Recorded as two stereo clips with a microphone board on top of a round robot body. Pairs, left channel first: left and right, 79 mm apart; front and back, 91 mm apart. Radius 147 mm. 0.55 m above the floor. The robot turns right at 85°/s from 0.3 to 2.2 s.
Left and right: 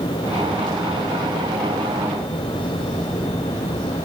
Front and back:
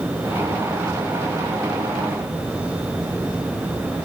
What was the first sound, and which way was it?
Only background noise.